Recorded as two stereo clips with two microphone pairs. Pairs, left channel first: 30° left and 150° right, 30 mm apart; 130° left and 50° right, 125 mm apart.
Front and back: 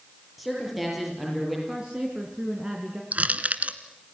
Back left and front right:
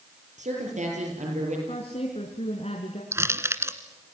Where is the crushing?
120° right, 1.6 m.